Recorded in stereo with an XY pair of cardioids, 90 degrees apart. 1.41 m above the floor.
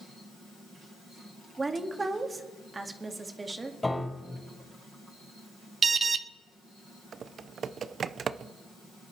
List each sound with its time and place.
1.6 s a woman speaking: 25° right, 2 m
3.8 s a piano: 20° left, 5.5 m
5.8 s an alarm: 45° right, 1.0 m
7.1 s typing on a keyboard: 55° right, 0.5 m